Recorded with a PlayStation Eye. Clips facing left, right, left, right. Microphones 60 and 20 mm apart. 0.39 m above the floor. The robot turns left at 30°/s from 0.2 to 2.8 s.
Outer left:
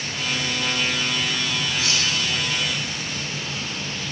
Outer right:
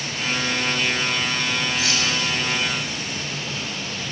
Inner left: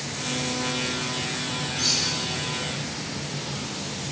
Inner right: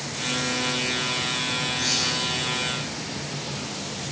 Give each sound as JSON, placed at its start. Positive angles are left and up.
{"t": 1.8, "sound": "cutlery clinking", "side_deg": 45, "distance_m": 1.3}